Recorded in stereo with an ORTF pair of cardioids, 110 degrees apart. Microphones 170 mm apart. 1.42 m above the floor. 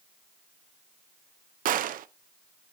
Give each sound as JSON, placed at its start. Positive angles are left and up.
{"t": 1.6, "sound": "a gunshot", "azimuth_deg": -55, "distance_m": 0.6}